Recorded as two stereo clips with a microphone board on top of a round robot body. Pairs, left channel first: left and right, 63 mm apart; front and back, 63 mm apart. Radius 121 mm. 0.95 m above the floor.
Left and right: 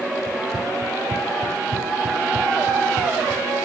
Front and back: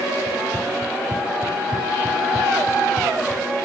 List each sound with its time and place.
0.3 s running footsteps: 115° right; by 3.5 s 100° right